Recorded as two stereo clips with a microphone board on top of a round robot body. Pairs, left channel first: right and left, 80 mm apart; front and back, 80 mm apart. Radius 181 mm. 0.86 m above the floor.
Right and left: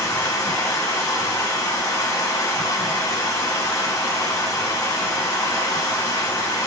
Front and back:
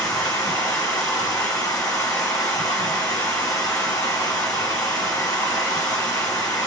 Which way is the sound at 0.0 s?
45° right.